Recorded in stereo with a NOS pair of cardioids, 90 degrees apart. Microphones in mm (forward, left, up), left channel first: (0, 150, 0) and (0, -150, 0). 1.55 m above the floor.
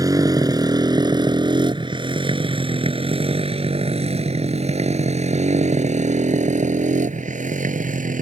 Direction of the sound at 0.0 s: 10° right.